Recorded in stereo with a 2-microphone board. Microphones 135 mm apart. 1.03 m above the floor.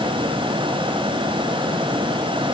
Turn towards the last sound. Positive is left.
No sound to turn to.